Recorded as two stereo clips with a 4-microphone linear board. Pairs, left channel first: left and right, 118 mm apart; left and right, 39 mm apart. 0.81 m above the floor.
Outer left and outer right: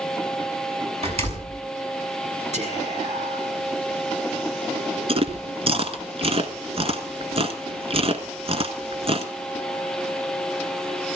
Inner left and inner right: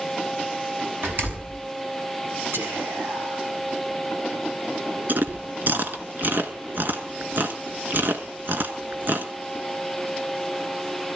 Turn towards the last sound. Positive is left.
turn(degrees=-55)  # may be behind; listen again after turning